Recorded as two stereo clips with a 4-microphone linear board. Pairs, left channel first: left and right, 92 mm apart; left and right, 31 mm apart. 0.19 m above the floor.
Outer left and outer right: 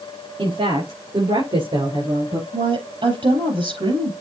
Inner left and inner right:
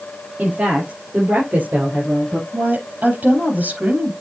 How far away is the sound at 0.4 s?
About 4 m.